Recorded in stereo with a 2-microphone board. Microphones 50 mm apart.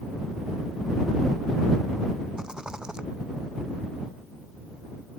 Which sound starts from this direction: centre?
A rattle, at 2.4 s.